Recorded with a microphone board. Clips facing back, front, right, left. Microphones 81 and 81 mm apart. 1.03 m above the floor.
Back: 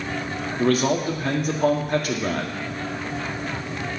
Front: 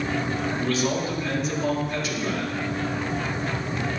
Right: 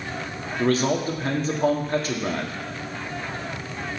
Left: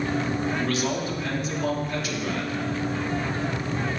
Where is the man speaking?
140° right, 1.8 m.